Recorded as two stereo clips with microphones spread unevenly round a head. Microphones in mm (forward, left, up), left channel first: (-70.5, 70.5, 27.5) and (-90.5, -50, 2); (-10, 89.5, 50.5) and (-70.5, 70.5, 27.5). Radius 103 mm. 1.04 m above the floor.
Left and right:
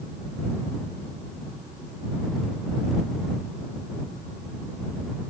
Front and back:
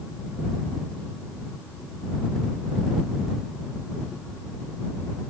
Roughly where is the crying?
I don't hear crying.